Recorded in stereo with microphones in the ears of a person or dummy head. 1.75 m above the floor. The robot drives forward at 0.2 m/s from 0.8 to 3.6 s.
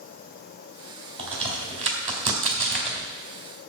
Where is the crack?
30° right (ahead or behind), 3 m; by 3.1 s 35° right (ahead or behind), 2.5 m.